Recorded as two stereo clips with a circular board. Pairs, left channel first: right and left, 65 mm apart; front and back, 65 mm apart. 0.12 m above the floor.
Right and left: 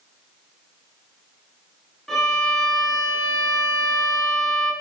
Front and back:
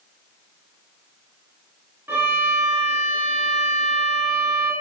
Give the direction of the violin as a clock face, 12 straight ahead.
6 o'clock.